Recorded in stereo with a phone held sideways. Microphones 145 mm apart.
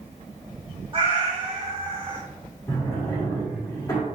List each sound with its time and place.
0.9 s a cat meowing: 40° right (ahead or behind), 1.2 m
2.7 s a drawer: 20° left (ahead or behind), 1.5 m